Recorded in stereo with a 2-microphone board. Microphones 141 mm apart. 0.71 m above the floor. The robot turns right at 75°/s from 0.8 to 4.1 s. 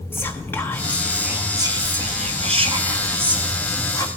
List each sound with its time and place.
0.1 s whispering: 160° left, 0.8 m; by 4.1 s 45° left, 0.8 m